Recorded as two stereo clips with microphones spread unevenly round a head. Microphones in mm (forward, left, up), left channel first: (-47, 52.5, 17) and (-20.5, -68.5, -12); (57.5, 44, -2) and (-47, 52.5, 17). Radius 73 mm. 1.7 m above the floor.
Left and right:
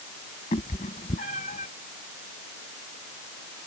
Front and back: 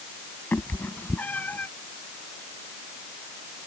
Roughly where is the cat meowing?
Left.